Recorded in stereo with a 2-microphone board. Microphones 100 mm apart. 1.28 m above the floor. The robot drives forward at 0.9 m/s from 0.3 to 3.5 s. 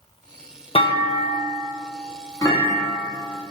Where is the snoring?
No snoring in this recording.